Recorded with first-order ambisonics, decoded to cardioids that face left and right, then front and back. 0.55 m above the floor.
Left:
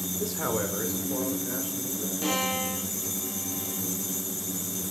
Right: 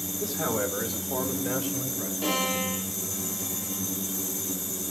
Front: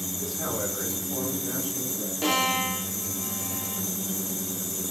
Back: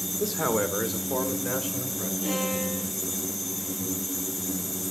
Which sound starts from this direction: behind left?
A man speaking, at 0.2 s.